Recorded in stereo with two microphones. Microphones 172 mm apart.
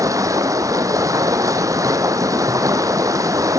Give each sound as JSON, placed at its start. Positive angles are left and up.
{"t": 0.0, "sound": "running water", "side_deg": -20, "distance_m": 0.8}